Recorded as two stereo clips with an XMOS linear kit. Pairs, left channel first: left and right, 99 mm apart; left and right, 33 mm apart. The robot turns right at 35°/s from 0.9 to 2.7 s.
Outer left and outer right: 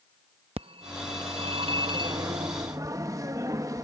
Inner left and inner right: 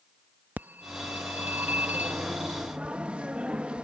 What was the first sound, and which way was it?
A phone ringing, 100° right.